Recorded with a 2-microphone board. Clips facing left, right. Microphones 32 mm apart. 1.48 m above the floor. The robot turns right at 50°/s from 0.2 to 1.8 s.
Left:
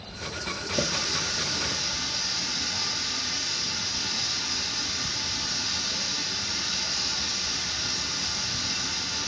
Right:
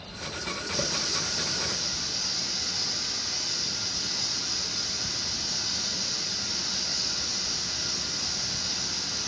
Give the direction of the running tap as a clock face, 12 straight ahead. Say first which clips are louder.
Left 3 dB; 10 o'clock.